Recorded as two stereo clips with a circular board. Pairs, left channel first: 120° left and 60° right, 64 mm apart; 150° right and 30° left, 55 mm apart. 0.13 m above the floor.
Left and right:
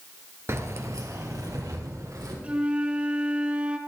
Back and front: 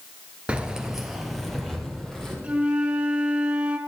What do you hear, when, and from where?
0.5 s keys jangling: 30° right, 1.6 m; by 2.3 s 70° right, 4 m
2.4 s a flute: 15° right, 1.4 m